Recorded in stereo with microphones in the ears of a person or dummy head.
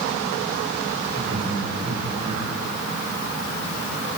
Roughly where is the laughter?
Right.